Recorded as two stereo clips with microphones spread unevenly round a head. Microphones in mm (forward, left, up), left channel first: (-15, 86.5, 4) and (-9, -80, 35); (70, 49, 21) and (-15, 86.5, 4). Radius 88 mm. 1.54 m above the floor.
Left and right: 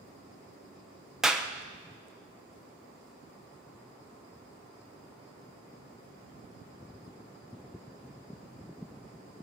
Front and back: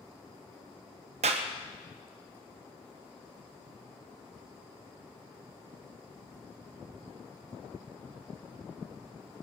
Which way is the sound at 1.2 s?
175° right.